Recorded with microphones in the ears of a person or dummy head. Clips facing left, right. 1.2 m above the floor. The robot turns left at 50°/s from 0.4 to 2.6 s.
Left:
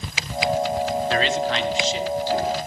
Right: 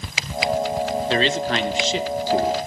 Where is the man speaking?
20° right, 1.5 m; by 2.6 s 95° right, 1.5 m.